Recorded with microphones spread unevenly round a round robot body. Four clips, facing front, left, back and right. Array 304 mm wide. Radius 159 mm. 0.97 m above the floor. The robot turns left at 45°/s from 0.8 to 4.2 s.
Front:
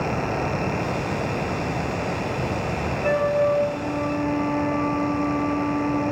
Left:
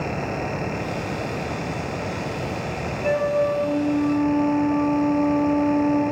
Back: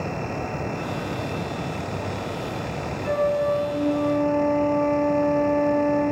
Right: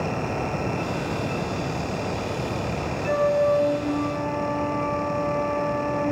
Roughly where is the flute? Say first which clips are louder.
Even, front 1 dB; ahead left.